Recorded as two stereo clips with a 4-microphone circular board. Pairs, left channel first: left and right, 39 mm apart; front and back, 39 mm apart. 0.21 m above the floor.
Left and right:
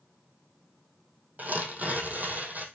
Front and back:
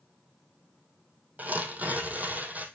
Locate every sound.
1.4 s tearing paper: 135° right, 2.5 m